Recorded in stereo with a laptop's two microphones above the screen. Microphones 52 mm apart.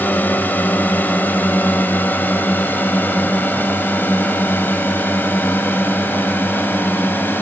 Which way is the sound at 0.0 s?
35° left (ahead or behind).